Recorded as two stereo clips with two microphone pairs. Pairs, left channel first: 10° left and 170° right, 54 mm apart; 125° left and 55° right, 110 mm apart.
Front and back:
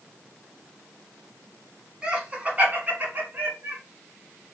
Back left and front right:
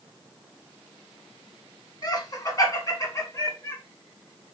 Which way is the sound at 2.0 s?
130° left.